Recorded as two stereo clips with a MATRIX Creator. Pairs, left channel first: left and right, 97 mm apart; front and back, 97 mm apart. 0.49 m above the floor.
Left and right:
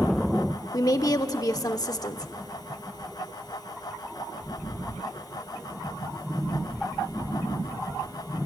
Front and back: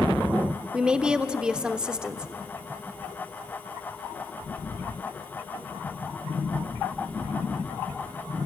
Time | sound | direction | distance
0.7 | a woman speaking | 105° left | 1.0 m